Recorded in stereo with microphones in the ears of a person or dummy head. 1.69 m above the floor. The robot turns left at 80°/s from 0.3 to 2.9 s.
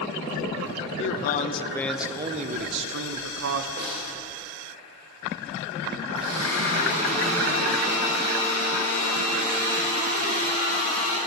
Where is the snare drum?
45° right (ahead or behind), 1.9 m.